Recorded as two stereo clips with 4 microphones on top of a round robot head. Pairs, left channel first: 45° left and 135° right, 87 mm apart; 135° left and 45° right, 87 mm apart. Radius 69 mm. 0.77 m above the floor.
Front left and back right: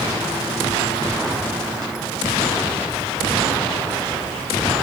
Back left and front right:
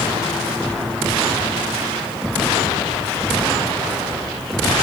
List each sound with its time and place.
Only background noise.